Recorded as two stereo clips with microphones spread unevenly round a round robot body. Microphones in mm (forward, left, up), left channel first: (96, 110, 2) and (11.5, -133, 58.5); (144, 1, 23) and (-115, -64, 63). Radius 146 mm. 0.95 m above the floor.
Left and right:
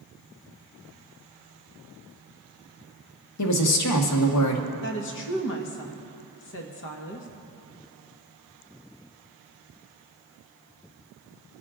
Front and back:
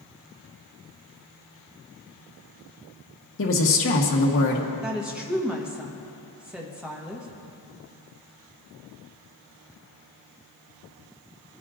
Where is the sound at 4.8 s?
105° left, 1.2 m.